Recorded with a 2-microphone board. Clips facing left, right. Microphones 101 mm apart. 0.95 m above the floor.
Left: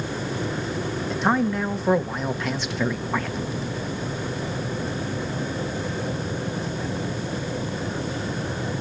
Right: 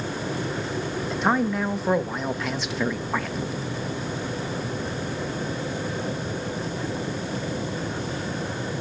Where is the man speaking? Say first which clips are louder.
Left 1 dB; centre (ahead or behind), 1.0 m.